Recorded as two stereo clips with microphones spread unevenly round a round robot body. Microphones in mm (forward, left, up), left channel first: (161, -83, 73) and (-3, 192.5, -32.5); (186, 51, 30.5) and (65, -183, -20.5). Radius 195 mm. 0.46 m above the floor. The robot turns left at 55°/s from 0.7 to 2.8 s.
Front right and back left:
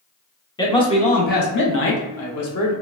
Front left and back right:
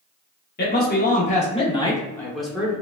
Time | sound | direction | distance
0.6 | a man speaking | 45° left | 0.8 m